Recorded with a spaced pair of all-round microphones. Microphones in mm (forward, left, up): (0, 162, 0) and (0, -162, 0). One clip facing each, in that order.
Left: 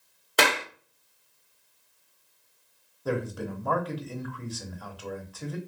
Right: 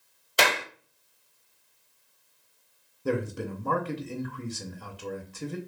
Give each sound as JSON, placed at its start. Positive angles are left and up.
{"t": 0.4, "sound": "a clap", "side_deg": 65, "distance_m": 1.2}
{"t": 3.0, "sound": "a man speaking", "side_deg": -30, "distance_m": 0.8}